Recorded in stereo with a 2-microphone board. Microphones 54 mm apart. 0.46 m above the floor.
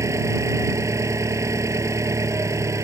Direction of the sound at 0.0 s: 70° right (ahead or behind).